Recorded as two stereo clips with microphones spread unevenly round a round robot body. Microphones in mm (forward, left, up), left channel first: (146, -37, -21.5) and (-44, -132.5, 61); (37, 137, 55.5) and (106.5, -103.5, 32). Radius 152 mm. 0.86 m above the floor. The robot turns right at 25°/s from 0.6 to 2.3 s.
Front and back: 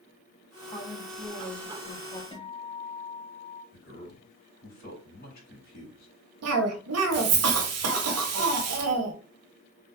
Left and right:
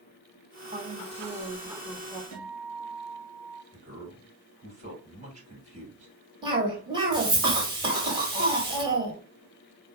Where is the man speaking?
15° right, 3 m.